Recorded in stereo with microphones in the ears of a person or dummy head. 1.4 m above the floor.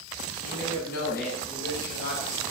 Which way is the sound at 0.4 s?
85° left.